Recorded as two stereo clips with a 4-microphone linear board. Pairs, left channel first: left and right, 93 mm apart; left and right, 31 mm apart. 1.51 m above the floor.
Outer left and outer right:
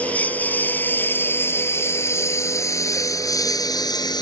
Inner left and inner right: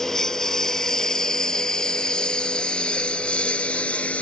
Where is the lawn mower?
15° left (ahead or behind); by 4.2 s 50° left (ahead or behind).